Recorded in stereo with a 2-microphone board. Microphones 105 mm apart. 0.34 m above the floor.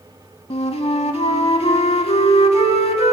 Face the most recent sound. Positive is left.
turn(degrees=75)  # may be behind; listen again after turning